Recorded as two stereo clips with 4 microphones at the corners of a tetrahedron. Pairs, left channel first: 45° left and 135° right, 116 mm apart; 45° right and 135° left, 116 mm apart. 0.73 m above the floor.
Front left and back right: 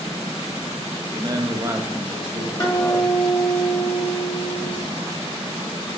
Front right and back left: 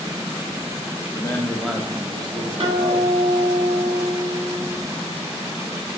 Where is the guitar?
100° left, 1.3 m.